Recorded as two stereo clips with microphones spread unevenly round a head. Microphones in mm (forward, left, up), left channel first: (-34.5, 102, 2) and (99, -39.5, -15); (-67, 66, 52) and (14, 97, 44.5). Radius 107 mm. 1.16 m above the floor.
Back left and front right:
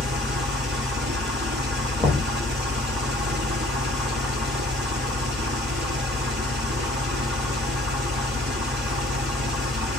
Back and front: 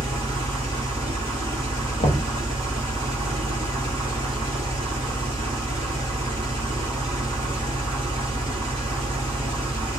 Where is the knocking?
135° right, 0.8 m.